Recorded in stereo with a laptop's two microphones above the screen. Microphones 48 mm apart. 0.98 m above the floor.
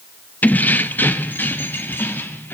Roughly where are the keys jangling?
Left.